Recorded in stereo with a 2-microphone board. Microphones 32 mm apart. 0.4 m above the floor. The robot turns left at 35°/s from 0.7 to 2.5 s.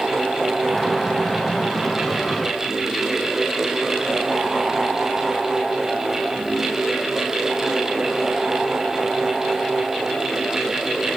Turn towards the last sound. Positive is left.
No sound to turn to.